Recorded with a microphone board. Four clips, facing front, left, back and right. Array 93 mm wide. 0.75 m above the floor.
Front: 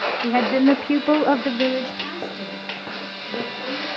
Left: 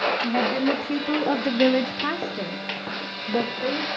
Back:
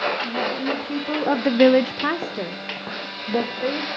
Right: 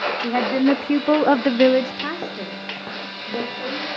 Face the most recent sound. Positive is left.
turn(degrees=170)